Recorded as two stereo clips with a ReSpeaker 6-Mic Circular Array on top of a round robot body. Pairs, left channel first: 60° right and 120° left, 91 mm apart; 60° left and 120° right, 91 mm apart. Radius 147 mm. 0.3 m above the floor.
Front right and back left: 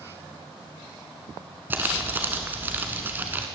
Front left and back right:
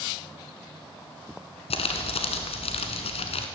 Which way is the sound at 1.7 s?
50° left.